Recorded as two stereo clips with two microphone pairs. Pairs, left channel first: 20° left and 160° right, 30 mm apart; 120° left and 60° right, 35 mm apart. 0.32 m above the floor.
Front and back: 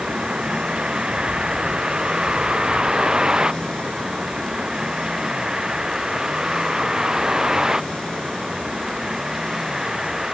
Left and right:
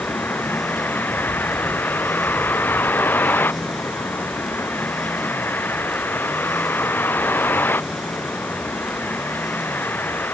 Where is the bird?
50° left.